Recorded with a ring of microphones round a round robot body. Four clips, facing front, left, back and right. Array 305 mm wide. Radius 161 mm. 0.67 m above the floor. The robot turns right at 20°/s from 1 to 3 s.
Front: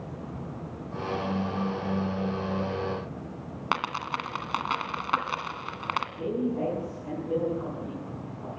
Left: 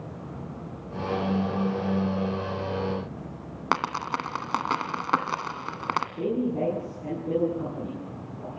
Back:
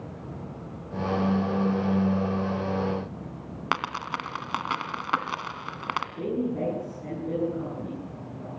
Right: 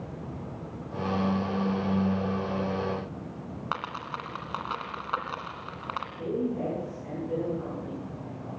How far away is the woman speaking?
About 8.5 m.